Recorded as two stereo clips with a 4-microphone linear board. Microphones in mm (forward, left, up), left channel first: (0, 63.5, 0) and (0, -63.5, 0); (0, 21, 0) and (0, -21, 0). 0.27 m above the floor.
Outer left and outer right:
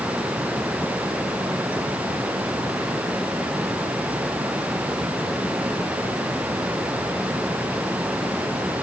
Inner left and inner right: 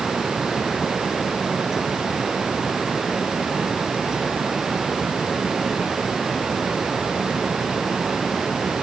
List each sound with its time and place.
Only background noise.